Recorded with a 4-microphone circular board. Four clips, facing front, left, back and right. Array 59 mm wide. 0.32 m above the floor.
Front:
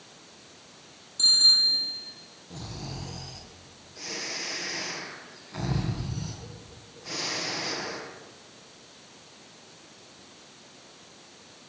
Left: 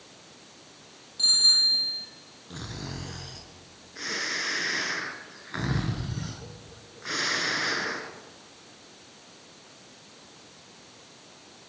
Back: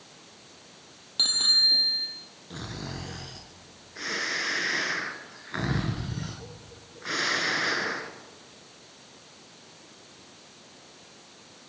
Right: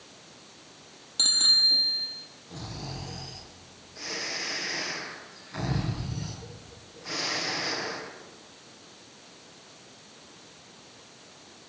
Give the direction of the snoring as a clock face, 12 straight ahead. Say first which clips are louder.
Left 1 dB, back 2 dB; 7 o'clock.